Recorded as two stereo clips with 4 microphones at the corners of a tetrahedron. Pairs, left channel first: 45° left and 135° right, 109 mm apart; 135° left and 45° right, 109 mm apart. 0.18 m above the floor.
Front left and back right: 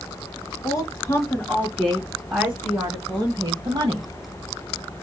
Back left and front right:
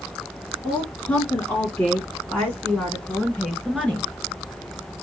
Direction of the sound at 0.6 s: 70° left.